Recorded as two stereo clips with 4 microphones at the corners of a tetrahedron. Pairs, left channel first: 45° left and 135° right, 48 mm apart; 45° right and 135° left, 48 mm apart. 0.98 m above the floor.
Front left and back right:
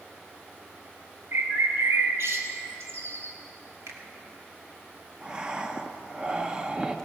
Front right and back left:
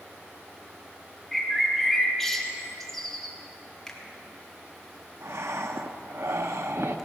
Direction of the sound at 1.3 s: 130° right.